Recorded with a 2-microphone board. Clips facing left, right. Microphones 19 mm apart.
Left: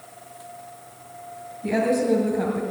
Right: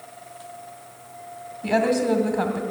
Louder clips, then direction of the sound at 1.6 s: Right 1 dB; 45° right (ahead or behind).